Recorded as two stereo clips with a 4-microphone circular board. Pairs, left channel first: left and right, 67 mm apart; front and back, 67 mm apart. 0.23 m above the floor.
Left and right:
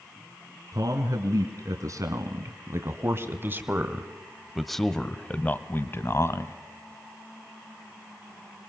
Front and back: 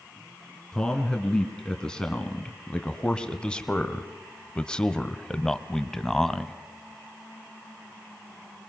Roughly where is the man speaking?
Right.